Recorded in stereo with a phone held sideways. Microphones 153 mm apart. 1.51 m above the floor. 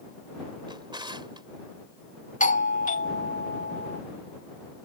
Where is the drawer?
30° right (ahead or behind).